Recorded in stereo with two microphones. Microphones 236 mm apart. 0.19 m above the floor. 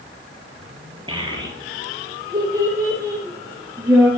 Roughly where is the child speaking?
Right.